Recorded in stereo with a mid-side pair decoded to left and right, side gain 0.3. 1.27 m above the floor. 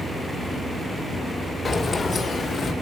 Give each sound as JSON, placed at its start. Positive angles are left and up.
{"t": 1.6, "sound": "keys jangling", "azimuth_deg": 60, "distance_m": 2.0}